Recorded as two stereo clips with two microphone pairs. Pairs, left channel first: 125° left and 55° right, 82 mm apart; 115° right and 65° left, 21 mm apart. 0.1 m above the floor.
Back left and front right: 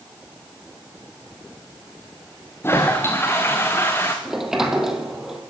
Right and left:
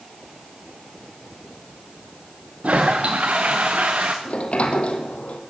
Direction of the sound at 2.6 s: 65° left.